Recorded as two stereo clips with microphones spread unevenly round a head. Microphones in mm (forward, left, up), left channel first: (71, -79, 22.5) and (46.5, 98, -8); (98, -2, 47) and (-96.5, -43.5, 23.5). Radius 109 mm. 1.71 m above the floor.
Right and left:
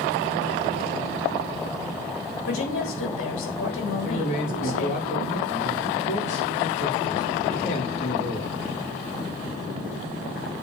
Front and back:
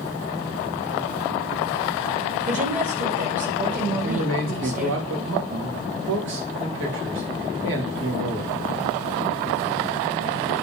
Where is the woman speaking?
115° right, 4 m.